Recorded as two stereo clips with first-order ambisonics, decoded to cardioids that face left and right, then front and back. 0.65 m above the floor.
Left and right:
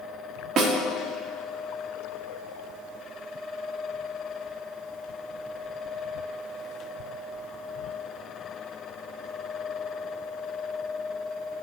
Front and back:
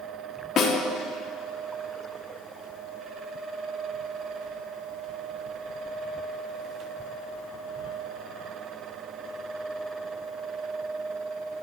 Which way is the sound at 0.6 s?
50° right.